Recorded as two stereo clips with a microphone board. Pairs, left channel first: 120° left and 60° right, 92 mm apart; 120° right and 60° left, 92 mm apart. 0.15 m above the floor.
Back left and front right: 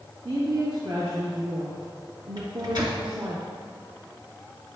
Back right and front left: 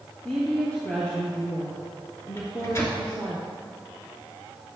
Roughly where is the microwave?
Right.